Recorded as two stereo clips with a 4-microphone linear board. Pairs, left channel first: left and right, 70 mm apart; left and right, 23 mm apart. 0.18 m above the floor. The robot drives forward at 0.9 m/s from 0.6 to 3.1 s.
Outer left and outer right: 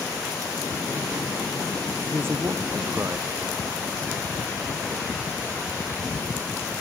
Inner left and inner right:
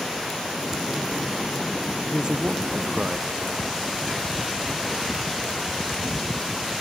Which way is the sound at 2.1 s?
35° right (ahead or behind).